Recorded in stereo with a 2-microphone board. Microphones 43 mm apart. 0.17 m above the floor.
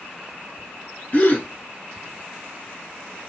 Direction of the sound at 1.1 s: 40° left (ahead or behind).